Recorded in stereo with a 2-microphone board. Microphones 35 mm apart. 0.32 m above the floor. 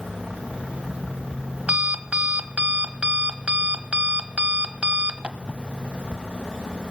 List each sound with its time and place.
0.4 s an alarm clock: 40° right (ahead or behind), 1.1 m